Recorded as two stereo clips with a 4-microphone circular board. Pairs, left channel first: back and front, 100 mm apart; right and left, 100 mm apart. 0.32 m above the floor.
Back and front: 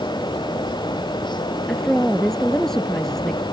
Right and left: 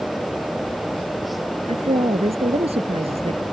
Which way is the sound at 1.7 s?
95° left.